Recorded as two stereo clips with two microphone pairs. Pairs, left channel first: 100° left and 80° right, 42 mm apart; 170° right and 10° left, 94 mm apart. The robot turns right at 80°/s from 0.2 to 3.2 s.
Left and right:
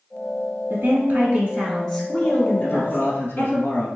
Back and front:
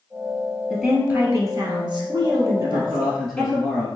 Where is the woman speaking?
90° right, 1.7 m; by 3.6 s 110° left, 1.7 m.